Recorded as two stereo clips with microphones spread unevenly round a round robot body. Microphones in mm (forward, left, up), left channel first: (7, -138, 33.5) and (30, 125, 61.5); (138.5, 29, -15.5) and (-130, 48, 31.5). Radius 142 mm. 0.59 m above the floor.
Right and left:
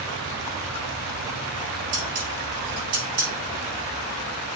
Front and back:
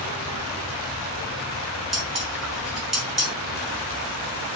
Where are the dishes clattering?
85° left, 4.5 m.